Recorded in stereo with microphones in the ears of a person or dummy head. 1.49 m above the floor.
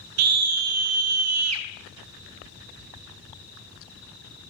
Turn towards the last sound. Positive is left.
turn(degrees=-80)